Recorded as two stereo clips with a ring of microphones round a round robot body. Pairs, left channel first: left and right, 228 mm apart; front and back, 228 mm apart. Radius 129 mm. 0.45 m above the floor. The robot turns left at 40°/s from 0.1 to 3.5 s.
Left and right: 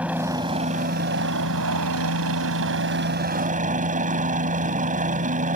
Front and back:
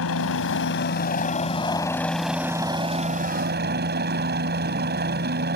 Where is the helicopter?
5° right; by 5.6 s 140° right.